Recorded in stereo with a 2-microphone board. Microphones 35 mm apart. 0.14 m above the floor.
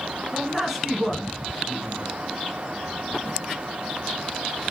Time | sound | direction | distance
0.3 | a man speaking | 15° right (ahead or behind) | 1.2 m